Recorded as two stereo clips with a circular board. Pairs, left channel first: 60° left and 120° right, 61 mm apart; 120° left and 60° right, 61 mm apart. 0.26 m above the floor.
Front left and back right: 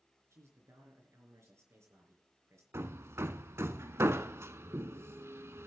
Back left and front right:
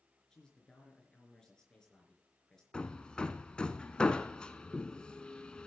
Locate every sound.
0.3 s a man speaking: 160° right, 4 m
2.7 s hammering: 165° right, 0.7 m